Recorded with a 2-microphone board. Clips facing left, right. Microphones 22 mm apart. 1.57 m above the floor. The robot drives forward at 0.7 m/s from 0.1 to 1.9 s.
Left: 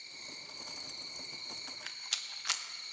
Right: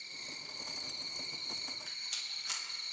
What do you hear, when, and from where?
0.0 s an insect: 15° right (ahead or behind), 2 m; by 2.9 s 25° right (ahead or behind), 1.6 m
1.7 s a rattle: 40° left (ahead or behind), 0.8 m; by 2.6 s 35° left (ahead or behind), 0.9 m